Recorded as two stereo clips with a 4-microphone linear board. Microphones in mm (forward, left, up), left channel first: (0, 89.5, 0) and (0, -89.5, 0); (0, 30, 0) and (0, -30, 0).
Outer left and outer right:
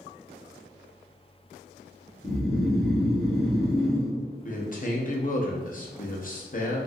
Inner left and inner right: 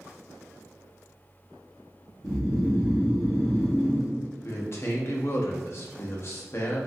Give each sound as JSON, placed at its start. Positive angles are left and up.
{"t": 2.2, "sound": "snoring", "side_deg": 0, "distance_m": 1.6}
{"t": 4.4, "sound": "a man speaking", "side_deg": 50, "distance_m": 0.6}